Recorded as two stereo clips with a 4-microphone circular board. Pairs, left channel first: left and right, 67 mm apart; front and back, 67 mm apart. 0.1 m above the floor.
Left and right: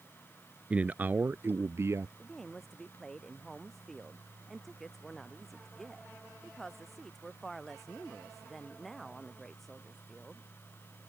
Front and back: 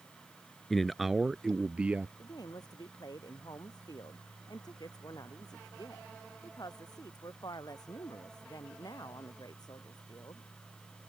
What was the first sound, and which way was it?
A man speaking, 75° right.